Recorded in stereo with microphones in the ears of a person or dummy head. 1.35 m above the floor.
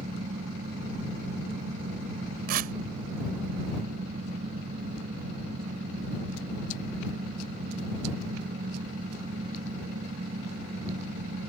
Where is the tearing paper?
55° right (ahead or behind).